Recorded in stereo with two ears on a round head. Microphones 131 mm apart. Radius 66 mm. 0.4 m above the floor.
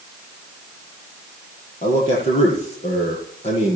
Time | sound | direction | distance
1.8 | a man speaking | 50° left (ahead or behind) | 8 m